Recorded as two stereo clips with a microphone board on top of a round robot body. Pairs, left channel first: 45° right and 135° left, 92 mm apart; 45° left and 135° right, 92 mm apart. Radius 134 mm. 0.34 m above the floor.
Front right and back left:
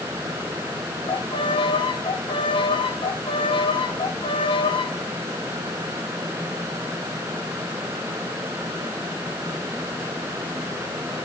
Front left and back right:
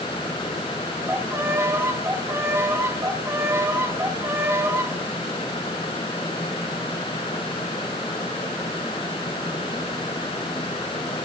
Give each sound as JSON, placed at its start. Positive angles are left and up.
{"t": 1.1, "sound": "a violin", "azimuth_deg": -75, "distance_m": 2.5}